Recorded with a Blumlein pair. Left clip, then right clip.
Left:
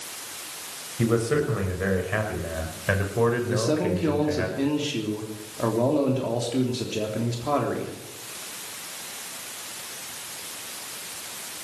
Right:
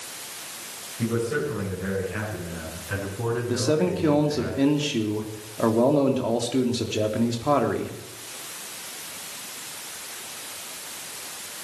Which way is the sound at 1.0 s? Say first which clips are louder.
Left 3 dB; 65° left.